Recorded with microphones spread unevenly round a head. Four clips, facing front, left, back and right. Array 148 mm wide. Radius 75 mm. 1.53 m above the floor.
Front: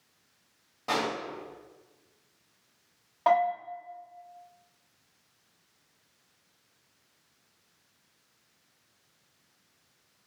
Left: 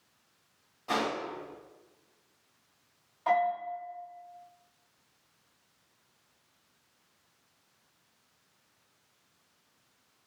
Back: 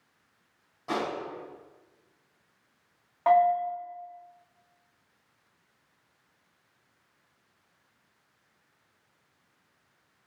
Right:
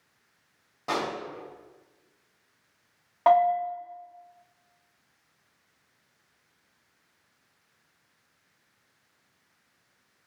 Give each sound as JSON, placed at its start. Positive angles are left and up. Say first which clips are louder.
{"t": 0.9, "sound": "a pop", "louder": "right 1 dB, front 1 dB", "azimuth_deg": -65, "distance_m": 3.0}
{"t": 3.3, "sound": "a bell", "louder": "right 7 dB, back 3 dB", "azimuth_deg": -80, "distance_m": 2.5}